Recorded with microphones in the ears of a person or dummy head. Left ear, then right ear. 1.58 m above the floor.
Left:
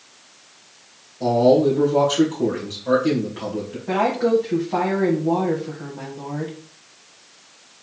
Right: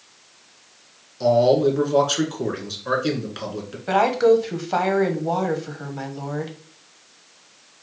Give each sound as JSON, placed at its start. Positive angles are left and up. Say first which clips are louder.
{"t": 1.2, "sound": "a man speaking", "louder": "left 1 dB", "side_deg": -85, "distance_m": 1.7}
{"t": 3.9, "sound": "a woman speaking", "louder": "right 3 dB", "side_deg": -80, "distance_m": 1.1}